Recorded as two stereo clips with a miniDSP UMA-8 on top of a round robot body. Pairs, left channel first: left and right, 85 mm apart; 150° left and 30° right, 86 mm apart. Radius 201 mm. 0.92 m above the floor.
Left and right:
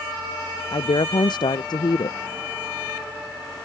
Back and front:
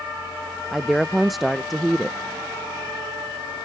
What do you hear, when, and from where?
0.7 s a woman speaking: 60° left